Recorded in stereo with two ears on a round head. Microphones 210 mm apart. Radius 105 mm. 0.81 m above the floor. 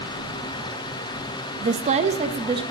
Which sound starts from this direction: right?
A woman speaking, at 1.6 s.